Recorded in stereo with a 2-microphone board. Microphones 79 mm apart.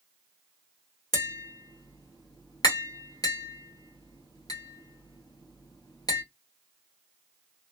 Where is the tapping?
60° left (ahead or behind), 1.5 m.